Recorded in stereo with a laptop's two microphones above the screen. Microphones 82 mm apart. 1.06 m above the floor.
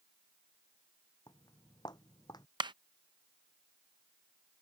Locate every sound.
1.3 s footsteps: 60° left (ahead or behind); by 2.5 s 55° left (ahead or behind)
2.6 s a clap: 70° right (ahead or behind)